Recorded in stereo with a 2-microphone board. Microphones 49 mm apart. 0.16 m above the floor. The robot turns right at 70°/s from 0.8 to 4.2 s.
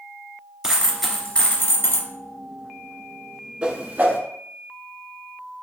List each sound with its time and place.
0.6 s a dropped coin: 10° right, 1.1 m; by 2.1 s 75° left, 1.1 m
3.6 s a whoosh: 20° right (ahead or behind), 0.7 m; by 4.2 s 45° right (ahead or behind), 0.7 m